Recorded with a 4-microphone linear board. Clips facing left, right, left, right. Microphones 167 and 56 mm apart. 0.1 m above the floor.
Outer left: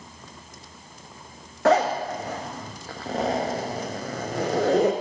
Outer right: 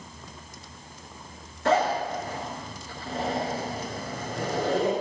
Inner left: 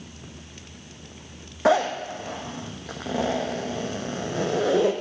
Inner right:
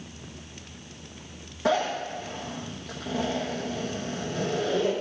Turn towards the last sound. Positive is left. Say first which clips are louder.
# outer left 3 dB, inner left 5 dB
turn(degrees=80)